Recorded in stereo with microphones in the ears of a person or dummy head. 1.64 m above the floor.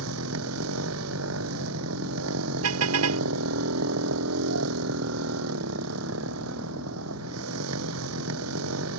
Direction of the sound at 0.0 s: 80° right.